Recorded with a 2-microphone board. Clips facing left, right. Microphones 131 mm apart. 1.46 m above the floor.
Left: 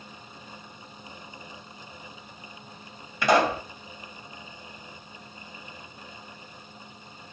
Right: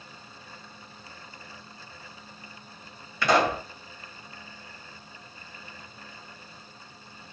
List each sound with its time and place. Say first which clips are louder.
3.2 s a pop: left 1 dB; 20° left (ahead or behind), 1.4 m